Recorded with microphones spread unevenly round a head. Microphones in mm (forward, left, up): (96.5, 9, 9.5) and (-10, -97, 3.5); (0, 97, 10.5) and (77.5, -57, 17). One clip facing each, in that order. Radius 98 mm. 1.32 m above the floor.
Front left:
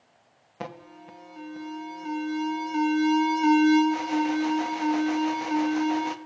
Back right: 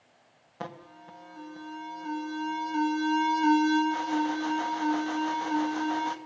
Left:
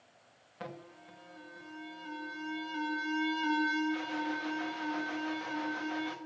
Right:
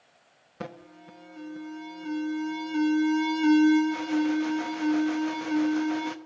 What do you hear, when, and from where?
0.6 s an alarm: 30° right, 1.1 m